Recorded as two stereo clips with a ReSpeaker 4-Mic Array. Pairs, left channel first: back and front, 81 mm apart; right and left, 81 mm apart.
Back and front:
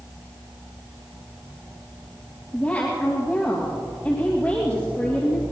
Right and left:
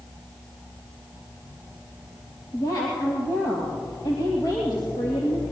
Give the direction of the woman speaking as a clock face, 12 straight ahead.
4 o'clock.